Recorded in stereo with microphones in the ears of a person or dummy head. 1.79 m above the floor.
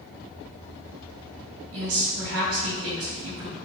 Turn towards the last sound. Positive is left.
turn(degrees=-80)